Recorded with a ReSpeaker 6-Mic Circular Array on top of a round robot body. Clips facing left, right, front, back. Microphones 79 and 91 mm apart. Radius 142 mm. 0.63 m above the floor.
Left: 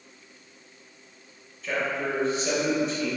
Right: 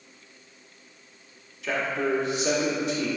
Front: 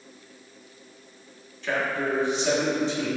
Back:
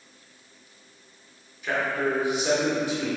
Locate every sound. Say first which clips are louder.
1.6 s a man speaking: right 1 dB, back 1 dB; 100° right, 1.9 m